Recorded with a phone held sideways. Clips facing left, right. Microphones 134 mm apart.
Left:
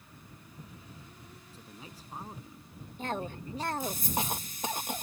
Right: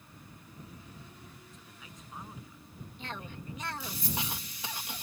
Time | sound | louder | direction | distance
1.5 | a man speaking | left 3 dB | 30° left (ahead or behind) | ?
3.0 | a cough | left 8 dB | 45° left (ahead or behind) | ?